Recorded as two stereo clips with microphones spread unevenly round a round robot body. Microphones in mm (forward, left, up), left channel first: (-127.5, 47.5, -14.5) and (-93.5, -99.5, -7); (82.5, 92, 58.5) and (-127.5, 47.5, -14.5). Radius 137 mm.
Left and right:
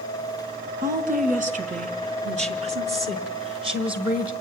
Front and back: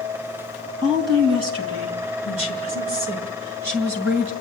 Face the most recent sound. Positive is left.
turn(degrees=-135)